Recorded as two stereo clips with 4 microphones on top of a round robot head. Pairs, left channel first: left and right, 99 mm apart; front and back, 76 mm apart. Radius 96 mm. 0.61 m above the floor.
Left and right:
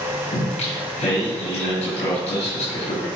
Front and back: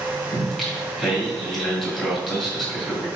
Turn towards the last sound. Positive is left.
turn(degrees=85)